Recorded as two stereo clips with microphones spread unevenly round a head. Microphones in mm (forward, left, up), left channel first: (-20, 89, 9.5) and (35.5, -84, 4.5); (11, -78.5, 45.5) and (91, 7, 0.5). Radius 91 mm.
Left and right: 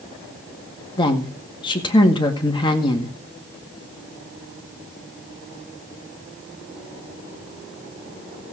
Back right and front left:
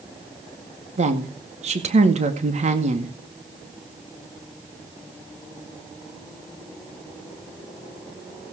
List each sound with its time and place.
1.0 s a woman speaking: 40° left, 2 m